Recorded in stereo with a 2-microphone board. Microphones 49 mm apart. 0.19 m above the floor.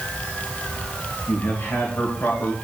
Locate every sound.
1.3 s a man speaking: 55° left (ahead or behind), 3 m